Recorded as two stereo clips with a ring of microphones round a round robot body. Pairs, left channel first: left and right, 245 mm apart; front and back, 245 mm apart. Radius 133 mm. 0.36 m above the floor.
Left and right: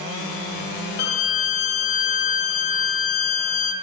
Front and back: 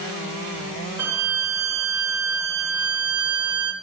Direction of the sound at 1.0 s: 100° left.